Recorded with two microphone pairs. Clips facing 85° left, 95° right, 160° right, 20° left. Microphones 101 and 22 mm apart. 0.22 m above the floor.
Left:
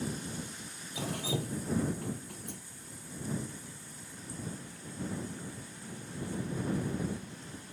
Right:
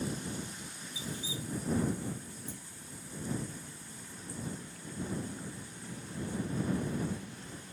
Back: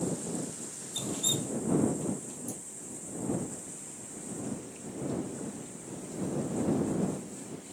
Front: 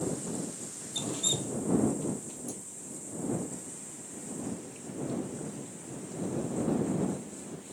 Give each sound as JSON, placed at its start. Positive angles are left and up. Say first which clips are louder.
{"t": 0.9, "sound": "dripping", "louder": "left 7 dB, even", "azimuth_deg": 105}